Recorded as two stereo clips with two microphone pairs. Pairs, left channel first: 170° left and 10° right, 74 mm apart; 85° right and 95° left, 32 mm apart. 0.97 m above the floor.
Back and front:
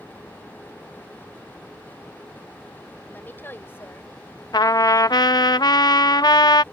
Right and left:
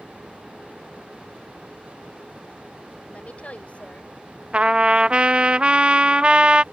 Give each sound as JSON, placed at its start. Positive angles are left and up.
{"t": 3.1, "sound": "a woman speaking", "azimuth_deg": -125}
{"t": 4.5, "sound": "a trumpet", "azimuth_deg": 140}